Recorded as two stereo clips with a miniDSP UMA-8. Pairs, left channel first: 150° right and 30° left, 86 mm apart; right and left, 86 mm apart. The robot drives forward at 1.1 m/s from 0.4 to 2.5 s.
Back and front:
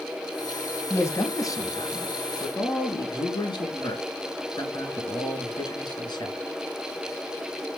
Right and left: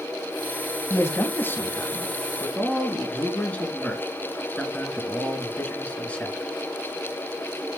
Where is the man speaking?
115° right, 1.5 m; by 6.5 s 160° right, 2.5 m.